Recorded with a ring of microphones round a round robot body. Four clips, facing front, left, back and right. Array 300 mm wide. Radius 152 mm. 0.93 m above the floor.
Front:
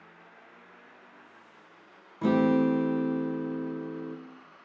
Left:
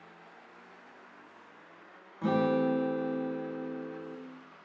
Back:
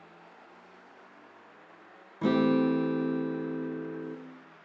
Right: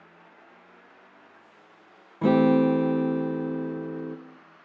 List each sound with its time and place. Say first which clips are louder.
2.2 s a guitar: right 8 dB, front 1 dB; 100° right, 0.6 m